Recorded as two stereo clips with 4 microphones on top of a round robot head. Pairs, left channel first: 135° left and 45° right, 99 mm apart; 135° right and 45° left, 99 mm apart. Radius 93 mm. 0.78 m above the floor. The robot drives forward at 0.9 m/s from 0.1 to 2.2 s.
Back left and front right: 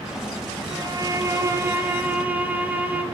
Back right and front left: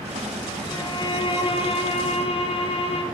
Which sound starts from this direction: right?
A violin, at 0.7 s.